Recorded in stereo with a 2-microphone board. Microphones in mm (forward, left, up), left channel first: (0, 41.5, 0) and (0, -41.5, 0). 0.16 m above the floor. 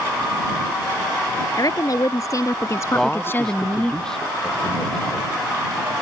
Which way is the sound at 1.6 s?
50° left (ahead or behind).